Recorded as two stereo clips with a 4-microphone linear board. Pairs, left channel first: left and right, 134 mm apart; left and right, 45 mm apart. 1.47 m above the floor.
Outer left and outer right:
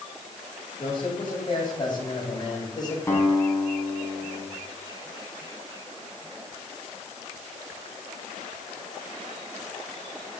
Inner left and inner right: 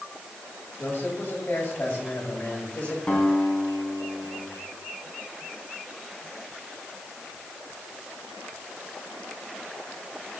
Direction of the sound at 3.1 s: 20° left (ahead or behind).